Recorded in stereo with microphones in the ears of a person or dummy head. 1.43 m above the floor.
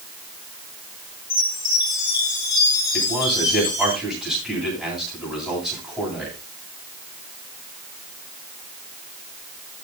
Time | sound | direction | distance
1.3 | a chime | 20° left (ahead or behind) | 4.5 m
2.9 | a man speaking | centre (ahead or behind) | 9 m